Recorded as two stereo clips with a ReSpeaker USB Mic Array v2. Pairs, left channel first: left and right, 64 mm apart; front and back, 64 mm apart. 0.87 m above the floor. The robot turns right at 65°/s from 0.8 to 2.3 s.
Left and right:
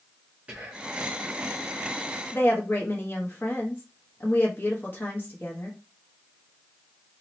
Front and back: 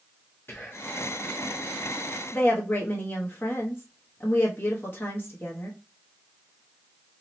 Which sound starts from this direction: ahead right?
Whispering, at 0.5 s.